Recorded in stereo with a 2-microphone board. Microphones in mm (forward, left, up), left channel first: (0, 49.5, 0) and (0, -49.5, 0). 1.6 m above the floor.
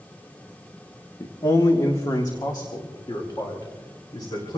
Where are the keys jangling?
I don't hear keys jangling.